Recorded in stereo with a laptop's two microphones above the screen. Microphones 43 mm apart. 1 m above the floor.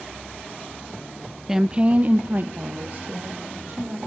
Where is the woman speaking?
10° right (ahead or behind), 0.7 m; by 4.0 s 45° right (ahead or behind), 2.5 m.